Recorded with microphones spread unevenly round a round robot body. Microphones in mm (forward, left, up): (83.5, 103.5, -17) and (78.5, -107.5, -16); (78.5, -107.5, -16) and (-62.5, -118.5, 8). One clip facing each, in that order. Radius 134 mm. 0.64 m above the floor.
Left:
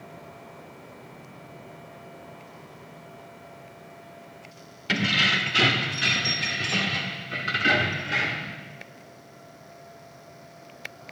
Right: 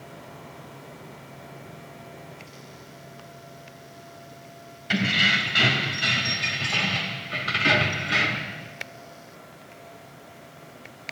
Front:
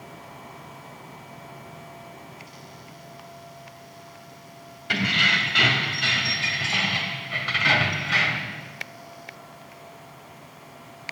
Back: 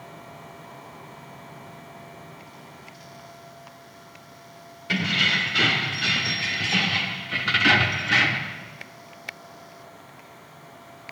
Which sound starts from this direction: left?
Keys jangling, at 4.9 s.